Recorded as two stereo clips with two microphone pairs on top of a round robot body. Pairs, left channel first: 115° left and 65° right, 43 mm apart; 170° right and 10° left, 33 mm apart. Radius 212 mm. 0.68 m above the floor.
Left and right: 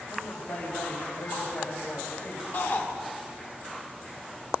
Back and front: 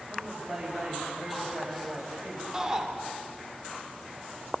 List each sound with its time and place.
0.1 s a woman speaking: 105° left, 5.5 m
2.5 s a shout: 85° left, 2.5 m